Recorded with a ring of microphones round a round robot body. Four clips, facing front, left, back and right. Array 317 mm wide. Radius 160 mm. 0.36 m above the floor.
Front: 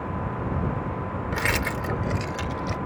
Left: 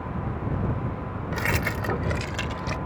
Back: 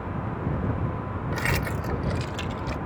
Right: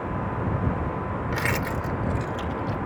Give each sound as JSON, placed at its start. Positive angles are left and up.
{"t": 1.3, "sound": "keys jangling", "azimuth_deg": -55}